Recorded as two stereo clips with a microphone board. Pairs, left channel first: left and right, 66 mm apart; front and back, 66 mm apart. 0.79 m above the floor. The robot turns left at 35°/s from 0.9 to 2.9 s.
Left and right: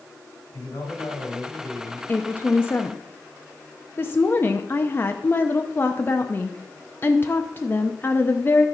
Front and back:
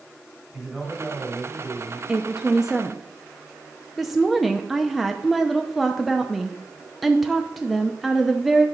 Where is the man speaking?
90° left, 4.5 m; by 2.0 s 50° left, 4.5 m.